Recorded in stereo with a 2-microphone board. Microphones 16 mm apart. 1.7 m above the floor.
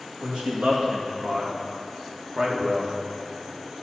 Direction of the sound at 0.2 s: 80° right.